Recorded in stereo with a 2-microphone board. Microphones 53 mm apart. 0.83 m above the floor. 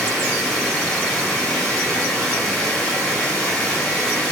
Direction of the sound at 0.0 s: 15° left (ahead or behind).